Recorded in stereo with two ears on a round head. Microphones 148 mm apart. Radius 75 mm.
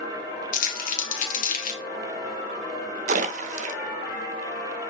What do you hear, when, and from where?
0.5 s crumpling: 55° left (ahead or behind), 1.8 m
3.1 s a splash: 45° right (ahead or behind), 0.8 m